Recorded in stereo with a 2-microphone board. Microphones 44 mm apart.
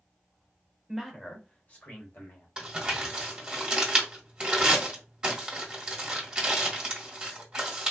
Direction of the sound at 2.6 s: 15° right (ahead or behind).